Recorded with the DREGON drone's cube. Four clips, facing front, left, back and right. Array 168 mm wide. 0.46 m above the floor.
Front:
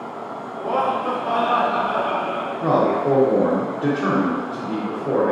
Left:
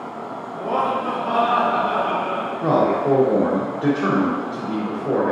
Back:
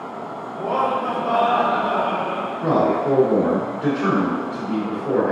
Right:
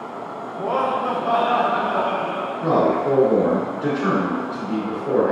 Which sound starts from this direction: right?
Laughter, at 0.5 s.